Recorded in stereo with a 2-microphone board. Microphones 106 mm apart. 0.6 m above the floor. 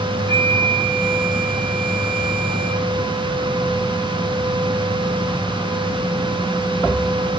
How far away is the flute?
About 1.8 m.